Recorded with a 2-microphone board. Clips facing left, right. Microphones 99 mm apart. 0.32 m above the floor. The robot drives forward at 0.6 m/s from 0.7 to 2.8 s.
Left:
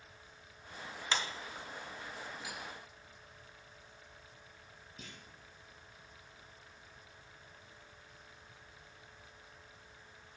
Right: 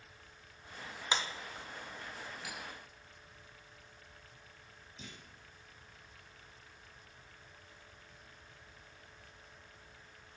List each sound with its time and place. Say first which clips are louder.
1.1 s a clap: right 1 dB; 15° right (ahead or behind), 0.7 m
2.4 s cutlery clinking: even; 40° right (ahead or behind), 3.5 m
5.0 s a clunk: right 1 dB; 50° left (ahead or behind), 2.5 m